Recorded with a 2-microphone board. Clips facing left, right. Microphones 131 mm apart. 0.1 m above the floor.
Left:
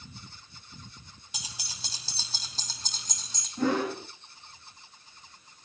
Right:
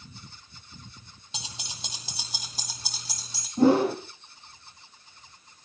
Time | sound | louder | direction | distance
1.3 | keys jangling | right 4 dB | 25° right (ahead or behind) | 2.5 m
3.6 | a whoosh | right 7 dB | 30° right (ahead or behind) | 2 m